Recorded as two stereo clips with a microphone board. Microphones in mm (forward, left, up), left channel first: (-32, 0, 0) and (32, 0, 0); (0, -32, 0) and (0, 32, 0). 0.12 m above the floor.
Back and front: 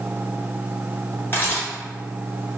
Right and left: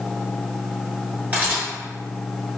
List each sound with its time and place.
1.3 s a camera shutter: 145° left, 1.9 m